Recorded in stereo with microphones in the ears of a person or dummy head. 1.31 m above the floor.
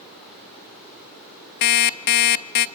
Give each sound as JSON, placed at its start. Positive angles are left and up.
{"t": 1.6, "sound": "an alarm clock", "side_deg": 55, "distance_m": 0.7}